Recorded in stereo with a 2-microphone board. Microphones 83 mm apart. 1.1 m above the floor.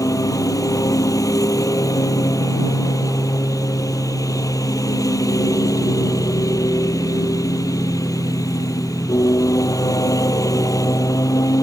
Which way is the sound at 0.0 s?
45° left (ahead or behind).